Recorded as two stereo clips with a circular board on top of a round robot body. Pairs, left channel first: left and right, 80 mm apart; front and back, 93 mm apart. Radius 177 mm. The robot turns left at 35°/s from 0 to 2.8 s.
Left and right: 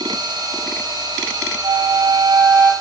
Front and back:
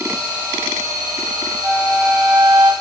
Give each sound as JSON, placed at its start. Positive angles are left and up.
{"t": 1.6, "sound": "a flute", "azimuth_deg": -120, "distance_m": 4.0}